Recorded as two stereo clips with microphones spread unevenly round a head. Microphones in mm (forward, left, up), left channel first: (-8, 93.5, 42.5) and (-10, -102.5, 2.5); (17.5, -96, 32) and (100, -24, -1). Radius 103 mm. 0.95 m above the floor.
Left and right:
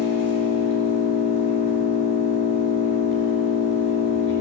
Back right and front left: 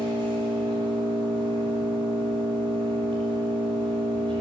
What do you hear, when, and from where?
0.0 s an engine running: 110° left, 7.5 m